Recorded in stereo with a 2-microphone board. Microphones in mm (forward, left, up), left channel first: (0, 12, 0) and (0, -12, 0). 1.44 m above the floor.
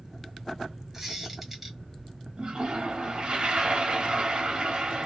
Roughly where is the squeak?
Centre.